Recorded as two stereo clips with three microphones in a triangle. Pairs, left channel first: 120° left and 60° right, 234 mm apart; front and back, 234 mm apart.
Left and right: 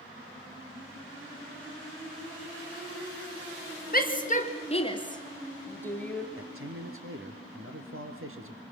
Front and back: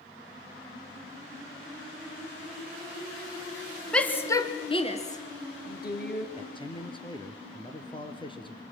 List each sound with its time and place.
3.9 s a shout: 85° left, 2.0 m; by 6.3 s 35° left, 3 m
6.4 s a man speaking: 65° right, 3 m